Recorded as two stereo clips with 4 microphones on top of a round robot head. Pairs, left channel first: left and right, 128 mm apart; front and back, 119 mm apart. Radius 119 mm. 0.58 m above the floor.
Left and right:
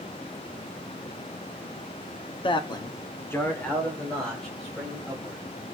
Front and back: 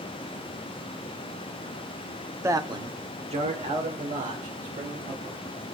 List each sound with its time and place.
2.4 s a man speaking: 115° left, 1.1 m; by 5.4 s straight behind, 4.5 m